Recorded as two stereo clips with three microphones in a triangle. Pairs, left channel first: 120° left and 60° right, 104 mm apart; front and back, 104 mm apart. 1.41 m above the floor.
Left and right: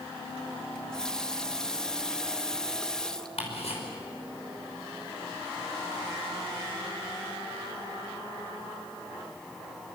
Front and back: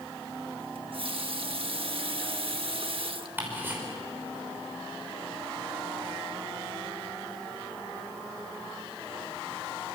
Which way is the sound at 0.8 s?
155° right.